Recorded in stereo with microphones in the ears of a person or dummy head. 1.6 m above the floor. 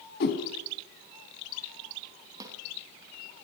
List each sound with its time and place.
0.2 s a whoosh: 60° left (ahead or behind), 4 m
2.4 s a snare drum: 15° right (ahead or behind), 3 m